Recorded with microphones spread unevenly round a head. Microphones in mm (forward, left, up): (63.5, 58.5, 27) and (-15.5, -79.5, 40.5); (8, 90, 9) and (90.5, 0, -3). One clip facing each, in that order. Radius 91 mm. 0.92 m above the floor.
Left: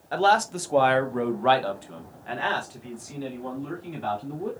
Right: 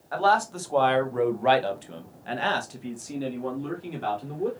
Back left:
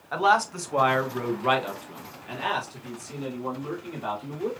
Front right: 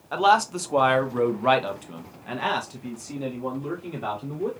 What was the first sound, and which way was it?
A man speaking, 15° left.